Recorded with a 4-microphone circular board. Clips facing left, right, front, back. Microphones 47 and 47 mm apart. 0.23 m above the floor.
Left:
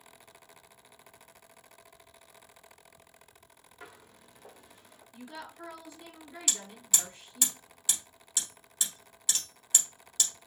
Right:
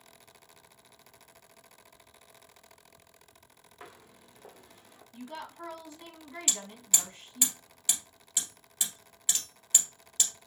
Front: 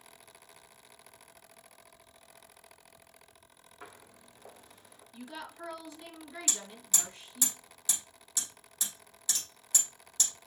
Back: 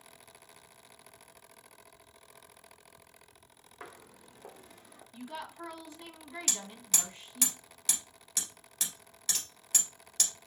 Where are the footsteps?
155° right, 3 m.